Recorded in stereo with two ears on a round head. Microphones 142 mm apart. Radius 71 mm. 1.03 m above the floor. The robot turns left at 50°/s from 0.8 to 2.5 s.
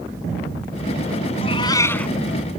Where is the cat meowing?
45° left; by 2.1 s 5° left.